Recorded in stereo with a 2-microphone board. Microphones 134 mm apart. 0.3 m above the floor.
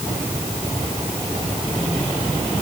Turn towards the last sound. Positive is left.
No sound to turn to.